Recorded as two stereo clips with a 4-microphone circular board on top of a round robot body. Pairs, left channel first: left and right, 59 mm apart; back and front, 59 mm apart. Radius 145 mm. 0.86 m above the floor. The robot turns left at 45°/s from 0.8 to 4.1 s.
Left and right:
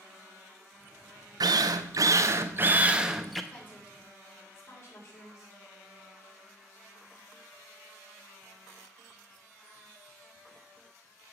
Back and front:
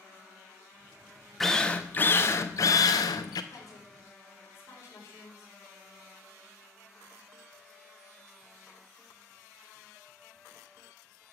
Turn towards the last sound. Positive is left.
turn(degrees=130)